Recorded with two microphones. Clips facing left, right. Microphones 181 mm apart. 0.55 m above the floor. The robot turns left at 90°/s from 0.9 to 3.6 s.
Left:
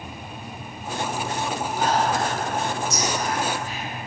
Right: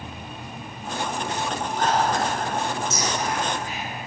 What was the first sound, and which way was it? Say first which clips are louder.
Whispering: even; 15° left (ahead or behind).